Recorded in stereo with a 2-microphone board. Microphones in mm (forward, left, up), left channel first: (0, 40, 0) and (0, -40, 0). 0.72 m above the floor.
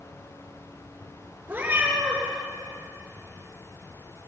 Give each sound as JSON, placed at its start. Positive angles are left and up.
{"t": 1.5, "sound": "a cat meowing", "side_deg": -20, "distance_m": 6.5}